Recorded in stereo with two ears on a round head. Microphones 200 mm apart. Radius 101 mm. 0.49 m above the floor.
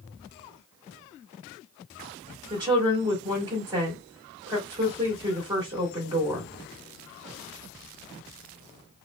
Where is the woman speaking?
20° right (ahead or behind), 1.9 m.